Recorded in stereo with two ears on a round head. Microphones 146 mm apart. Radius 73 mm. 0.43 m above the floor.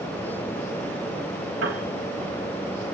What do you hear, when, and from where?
1.6 s a piano: 90° right, 5 m